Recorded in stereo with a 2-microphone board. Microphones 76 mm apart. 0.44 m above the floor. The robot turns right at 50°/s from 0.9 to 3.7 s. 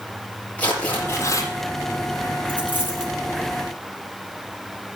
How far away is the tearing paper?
About 6.5 m.